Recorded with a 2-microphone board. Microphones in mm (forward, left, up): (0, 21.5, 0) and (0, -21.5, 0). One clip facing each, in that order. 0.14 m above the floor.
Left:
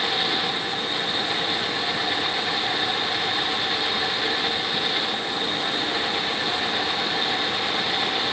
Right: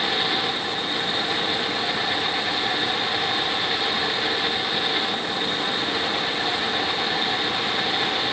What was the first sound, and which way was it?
Only background noise.